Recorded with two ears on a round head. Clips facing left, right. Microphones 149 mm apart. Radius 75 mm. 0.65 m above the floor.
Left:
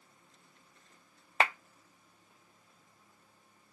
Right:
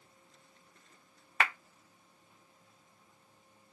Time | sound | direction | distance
1.4 | a clap | 25° left (ahead or behind) | 0.7 m